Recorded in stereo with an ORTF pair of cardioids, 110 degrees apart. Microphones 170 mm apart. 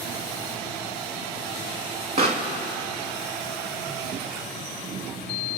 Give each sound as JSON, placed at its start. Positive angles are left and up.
{"t": 2.2, "sound": "a pop", "azimuth_deg": -35, "distance_m": 2.5}